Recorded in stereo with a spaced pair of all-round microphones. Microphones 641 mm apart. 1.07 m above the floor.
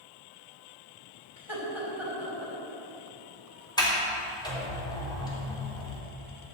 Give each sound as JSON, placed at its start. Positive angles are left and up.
{"t": 1.4, "sound": "laughter", "side_deg": -50, "distance_m": 5.5}
{"t": 3.8, "sound": "a sliding door", "side_deg": 5, "distance_m": 3.0}